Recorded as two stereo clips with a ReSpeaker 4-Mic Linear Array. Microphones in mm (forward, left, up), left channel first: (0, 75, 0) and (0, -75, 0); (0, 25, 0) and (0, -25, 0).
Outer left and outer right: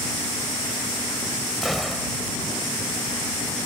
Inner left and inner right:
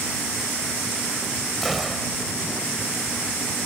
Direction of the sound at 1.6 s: Centre (ahead or behind).